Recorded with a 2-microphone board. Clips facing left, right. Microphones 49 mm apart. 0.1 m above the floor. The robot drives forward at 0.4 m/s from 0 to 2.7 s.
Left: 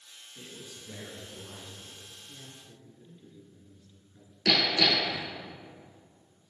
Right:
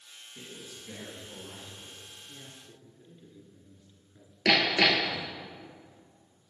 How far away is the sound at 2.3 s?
About 1.2 m.